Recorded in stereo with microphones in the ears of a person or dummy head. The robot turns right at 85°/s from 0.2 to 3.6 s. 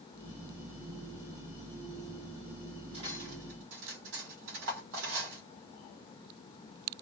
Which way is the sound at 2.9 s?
30° right (ahead or behind).